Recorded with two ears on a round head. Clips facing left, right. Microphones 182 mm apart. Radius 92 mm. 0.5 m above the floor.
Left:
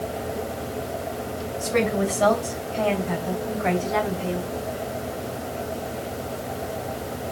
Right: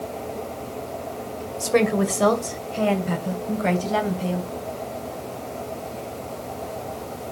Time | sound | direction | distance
1.6 | a woman speaking | 60° right (ahead or behind) | 2 m